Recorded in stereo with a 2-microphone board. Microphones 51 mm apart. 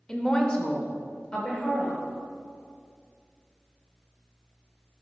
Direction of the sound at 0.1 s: 15° left (ahead or behind).